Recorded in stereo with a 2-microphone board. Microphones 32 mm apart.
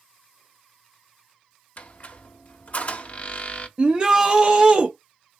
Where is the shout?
25° right (ahead or behind), 0.7 m.